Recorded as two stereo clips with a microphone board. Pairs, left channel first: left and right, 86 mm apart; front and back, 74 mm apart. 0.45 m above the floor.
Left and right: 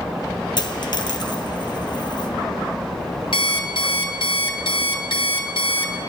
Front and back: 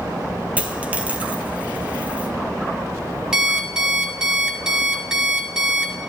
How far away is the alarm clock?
About 1.5 m.